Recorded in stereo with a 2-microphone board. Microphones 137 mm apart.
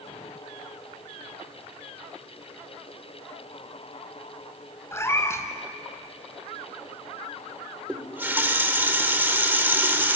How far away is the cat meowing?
About 1.8 m.